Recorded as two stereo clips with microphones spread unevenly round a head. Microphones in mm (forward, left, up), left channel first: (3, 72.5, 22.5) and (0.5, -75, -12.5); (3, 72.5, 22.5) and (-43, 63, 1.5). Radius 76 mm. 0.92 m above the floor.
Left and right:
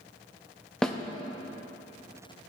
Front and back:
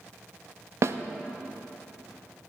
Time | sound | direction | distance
0.8 | a snare drum | 175° left | 0.6 m